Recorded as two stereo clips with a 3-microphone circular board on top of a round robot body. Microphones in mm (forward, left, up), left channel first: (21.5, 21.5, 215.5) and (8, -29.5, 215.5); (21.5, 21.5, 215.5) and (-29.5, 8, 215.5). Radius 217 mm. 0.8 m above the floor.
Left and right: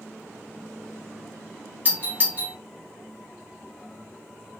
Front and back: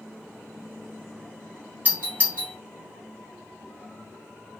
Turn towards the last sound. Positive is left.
turn(degrees=-130)